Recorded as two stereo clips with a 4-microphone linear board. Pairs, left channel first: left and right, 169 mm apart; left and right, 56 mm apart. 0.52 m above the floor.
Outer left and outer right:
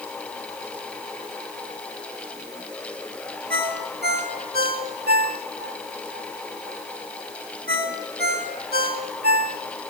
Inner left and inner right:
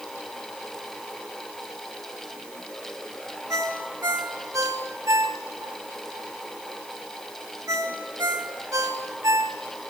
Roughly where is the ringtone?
Right.